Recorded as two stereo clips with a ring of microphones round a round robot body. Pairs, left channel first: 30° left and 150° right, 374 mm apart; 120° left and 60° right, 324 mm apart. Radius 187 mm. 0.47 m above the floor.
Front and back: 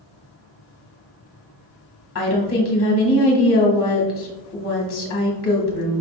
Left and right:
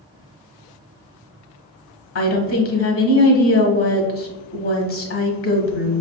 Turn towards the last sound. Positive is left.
turn(degrees=80)